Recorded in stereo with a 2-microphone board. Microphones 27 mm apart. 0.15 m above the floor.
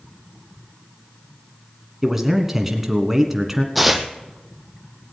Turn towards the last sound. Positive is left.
turn(degrees=0)  # may be behind; listen again after turning